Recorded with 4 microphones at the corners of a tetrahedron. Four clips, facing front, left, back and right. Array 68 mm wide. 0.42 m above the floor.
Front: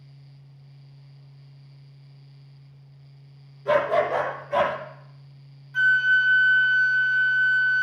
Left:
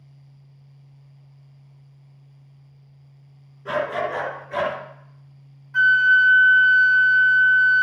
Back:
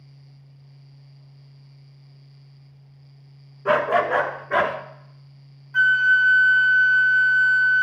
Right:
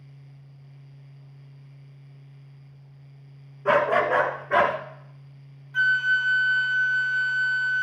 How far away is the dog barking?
About 1.9 m.